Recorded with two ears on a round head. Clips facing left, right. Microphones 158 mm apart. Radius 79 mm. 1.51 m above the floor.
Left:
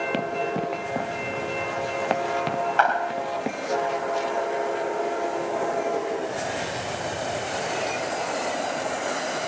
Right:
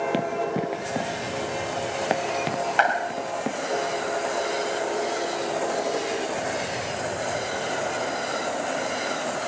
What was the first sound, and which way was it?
Running footsteps, 10° right (ahead or behind).